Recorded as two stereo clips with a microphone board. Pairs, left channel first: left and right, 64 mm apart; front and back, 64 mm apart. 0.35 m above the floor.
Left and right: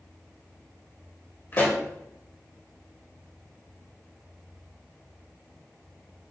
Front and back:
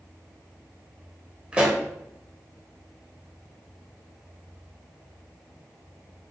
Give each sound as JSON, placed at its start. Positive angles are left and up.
{"t": 1.5, "sound": "a pop", "azimuth_deg": 120, "distance_m": 1.4}